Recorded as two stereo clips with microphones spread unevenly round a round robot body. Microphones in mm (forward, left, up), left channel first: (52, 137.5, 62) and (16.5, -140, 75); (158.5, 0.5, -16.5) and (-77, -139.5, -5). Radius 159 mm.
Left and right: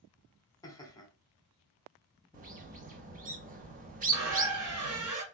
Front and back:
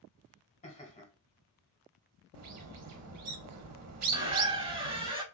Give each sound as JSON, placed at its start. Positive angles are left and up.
{"t": 0.6, "sound": "laughter", "azimuth_deg": 30, "distance_m": 1.3}
{"t": 2.3, "sound": "a bird", "azimuth_deg": -155, "distance_m": 0.7}
{"t": 4.1, "sound": "a squeak", "azimuth_deg": -80, "distance_m": 1.1}